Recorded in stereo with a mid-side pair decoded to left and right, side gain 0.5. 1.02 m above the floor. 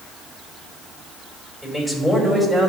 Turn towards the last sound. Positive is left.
turn(degrees=0)